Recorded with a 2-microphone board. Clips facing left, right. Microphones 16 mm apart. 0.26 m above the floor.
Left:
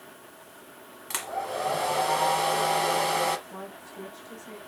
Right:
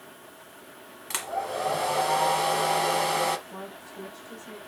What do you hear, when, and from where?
1.1 s a hair dryer: 10° right (ahead or behind), 1.0 m
3.5 s a woman speaking: centre (ahead or behind), 1.5 m